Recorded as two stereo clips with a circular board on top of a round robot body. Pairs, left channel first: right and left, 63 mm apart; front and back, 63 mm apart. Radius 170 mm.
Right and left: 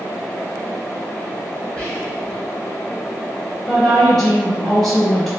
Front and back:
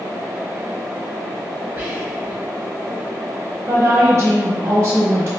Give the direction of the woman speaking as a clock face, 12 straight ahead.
6 o'clock.